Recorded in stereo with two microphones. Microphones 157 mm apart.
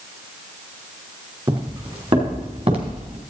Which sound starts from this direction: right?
Footsteps, at 1.5 s.